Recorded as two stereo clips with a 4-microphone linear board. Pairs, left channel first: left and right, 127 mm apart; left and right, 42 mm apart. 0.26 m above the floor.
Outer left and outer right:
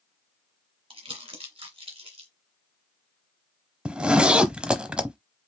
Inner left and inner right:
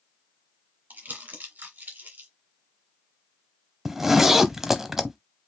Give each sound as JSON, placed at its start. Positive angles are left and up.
{"t": 0.9, "sound": "crumpling", "side_deg": -45, "distance_m": 2.0}
{"t": 3.9, "sound": "a zipper", "side_deg": -5, "distance_m": 0.7}